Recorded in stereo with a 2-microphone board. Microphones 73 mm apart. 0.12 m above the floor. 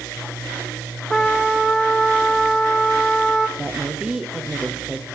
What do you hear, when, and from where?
1.1 s a trumpet: 5° left (ahead or behind), 2.0 m
3.6 s a woman speaking: 10° right (ahead or behind), 3.5 m